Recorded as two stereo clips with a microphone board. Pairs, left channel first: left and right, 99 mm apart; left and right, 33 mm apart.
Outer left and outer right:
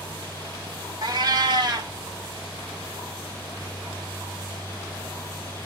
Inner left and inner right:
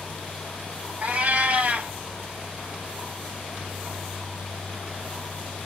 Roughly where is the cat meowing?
Right.